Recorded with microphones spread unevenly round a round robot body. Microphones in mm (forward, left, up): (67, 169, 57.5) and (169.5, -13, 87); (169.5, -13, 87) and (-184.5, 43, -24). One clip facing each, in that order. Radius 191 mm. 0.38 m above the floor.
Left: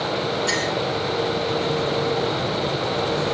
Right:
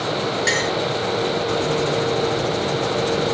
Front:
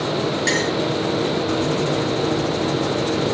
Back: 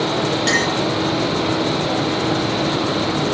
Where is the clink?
100° right, 7 m.